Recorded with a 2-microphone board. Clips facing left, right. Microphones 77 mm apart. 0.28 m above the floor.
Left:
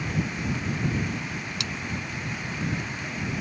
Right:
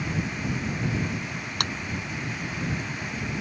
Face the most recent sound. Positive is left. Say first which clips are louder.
# right 4 dB
turn(degrees=-55)  # may be behind; listen again after turning